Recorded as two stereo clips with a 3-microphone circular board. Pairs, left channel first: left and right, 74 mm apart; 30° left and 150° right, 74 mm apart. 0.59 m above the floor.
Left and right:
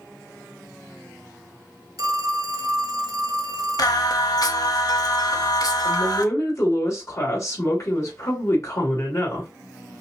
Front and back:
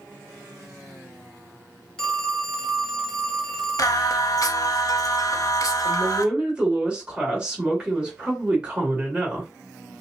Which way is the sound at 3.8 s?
65° left.